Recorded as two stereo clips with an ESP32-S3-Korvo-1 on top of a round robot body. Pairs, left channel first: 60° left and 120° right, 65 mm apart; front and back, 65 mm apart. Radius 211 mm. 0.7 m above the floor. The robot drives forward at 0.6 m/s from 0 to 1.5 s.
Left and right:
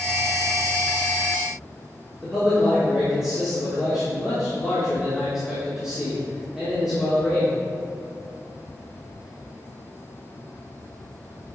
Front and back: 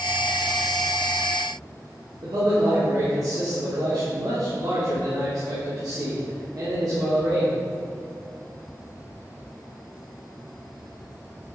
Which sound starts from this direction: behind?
A man speaking, at 2.2 s.